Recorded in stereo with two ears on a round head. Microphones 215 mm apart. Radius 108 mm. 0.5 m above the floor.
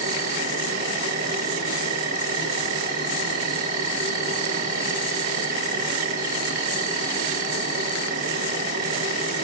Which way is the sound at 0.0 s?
35° right (ahead or behind).